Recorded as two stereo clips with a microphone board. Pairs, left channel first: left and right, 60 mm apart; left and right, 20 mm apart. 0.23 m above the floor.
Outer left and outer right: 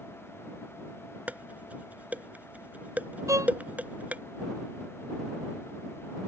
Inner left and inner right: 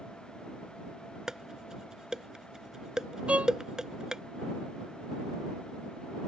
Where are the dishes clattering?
30° right (ahead or behind).